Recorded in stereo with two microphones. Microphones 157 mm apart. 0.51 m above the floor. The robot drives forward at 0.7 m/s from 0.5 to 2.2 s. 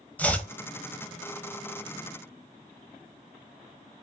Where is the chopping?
10° left (ahead or behind), 1.2 m.